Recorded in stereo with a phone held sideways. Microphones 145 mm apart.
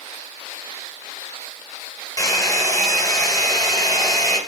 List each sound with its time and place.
2.2 s a hair dryer: 25° left (ahead or behind), 2.5 m